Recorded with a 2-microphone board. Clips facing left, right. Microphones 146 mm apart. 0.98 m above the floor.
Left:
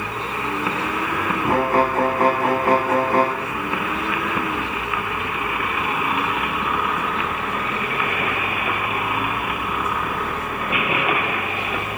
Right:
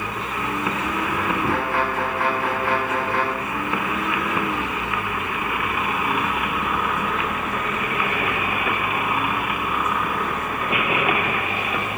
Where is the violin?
40° left (ahead or behind), 0.8 m.